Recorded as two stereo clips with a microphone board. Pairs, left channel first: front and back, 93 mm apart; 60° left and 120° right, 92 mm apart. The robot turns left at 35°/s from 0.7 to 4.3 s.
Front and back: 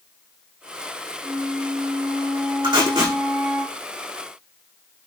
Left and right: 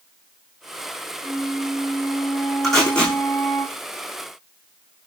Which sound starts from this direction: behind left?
Tape being pulled, at 2.6 s.